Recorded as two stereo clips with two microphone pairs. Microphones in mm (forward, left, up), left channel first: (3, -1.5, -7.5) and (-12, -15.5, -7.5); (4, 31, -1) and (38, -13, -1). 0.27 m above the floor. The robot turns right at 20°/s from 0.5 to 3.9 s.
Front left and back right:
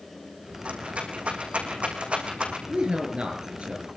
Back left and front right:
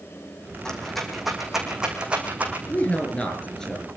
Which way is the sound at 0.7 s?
150° right.